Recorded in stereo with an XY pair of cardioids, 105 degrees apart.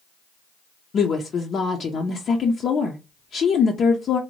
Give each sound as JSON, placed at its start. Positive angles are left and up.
{"t": 0.9, "sound": "a woman speaking", "azimuth_deg": 50, "distance_m": 0.5}